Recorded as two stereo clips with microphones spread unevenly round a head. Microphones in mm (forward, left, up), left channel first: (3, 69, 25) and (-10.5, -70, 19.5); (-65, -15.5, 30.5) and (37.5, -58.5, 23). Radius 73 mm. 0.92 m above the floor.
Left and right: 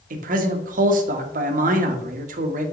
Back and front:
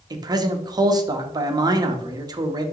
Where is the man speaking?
75° right, 1.1 m.